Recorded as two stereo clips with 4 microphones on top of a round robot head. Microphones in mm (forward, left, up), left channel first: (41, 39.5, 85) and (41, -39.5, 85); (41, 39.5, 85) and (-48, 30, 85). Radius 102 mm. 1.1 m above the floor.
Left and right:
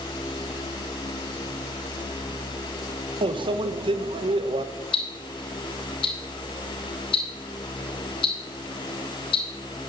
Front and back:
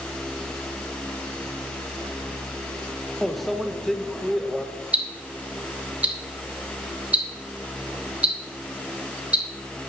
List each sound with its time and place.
3.2 s a microwave: 85° right, 0.7 m
4.9 s ticking: 110° left, 2.5 m